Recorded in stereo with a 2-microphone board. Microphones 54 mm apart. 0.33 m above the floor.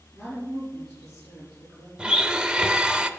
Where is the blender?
15° right (ahead or behind), 0.5 m.